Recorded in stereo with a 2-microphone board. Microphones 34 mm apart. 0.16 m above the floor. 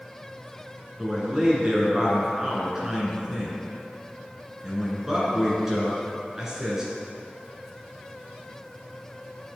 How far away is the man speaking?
About 2.0 m.